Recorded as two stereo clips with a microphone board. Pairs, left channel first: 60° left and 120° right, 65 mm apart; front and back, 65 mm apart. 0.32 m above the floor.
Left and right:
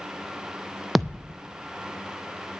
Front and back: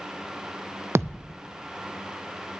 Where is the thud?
150° left, 0.5 m.